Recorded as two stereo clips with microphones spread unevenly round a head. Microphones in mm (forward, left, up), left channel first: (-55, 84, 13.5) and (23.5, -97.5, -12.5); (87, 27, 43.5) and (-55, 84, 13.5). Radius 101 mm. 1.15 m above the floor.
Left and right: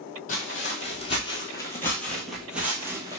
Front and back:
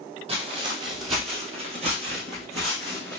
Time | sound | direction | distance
0.3 | footsteps | 110° left | 1.5 m